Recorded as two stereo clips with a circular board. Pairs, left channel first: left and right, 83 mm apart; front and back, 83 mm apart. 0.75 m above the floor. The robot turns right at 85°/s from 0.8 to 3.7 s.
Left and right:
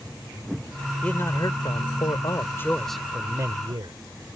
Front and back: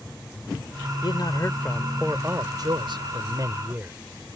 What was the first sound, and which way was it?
A man speaking, 15° left.